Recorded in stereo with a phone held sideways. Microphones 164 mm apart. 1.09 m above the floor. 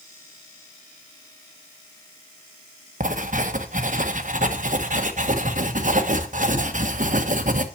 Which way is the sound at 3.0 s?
50° right (ahead or behind).